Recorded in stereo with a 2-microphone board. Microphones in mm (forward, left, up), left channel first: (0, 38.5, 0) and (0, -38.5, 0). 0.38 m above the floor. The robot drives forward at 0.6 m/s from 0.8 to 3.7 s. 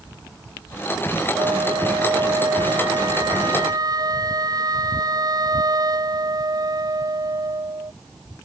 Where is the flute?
60° right (ahead or behind); by 7.9 s 55° right (ahead or behind).